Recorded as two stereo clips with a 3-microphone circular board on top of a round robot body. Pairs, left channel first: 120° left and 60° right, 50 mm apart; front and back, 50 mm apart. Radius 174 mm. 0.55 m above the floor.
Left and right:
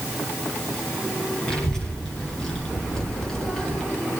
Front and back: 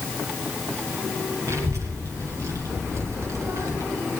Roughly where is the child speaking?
Behind.